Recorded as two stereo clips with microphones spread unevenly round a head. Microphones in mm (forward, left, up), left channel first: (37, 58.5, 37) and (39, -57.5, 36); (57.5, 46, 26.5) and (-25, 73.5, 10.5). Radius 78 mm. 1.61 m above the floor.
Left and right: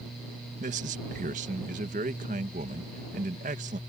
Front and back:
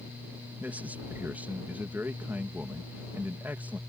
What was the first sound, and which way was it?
A man speaking, 115° right.